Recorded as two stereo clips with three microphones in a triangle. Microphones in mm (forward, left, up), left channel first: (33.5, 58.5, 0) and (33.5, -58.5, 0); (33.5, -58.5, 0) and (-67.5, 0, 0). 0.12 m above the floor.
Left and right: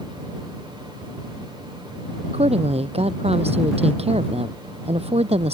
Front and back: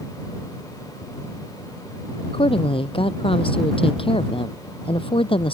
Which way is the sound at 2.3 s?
65° right.